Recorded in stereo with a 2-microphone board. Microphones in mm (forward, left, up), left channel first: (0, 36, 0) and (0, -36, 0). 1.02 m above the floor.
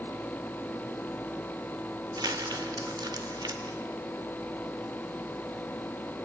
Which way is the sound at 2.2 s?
70° right (ahead or behind).